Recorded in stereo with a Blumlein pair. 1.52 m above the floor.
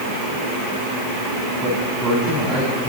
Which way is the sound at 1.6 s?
Straight ahead.